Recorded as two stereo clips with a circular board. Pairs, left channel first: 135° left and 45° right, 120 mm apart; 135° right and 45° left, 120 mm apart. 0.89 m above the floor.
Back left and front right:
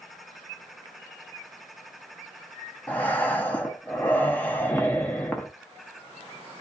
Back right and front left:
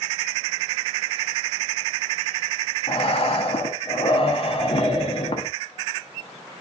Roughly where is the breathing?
Behind right.